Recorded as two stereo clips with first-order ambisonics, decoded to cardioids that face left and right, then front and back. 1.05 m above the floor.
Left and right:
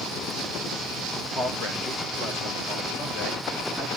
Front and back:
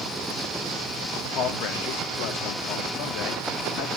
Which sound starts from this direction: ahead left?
A man speaking, at 1.4 s.